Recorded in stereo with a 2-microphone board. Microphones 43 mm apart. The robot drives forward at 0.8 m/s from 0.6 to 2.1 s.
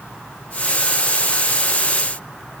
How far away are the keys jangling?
No keys jangling in this recording.